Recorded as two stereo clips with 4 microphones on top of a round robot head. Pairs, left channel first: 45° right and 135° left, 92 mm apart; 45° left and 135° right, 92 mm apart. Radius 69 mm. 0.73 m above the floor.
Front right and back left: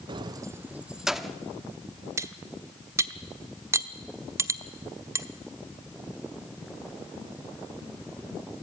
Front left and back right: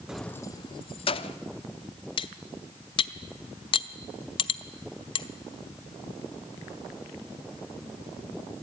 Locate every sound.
0.1 s keys jangling: 140° left, 0.6 m; by 1.4 s 45° left, 1.3 m
2.2 s cutlery clinking: 75° left, 1.0 m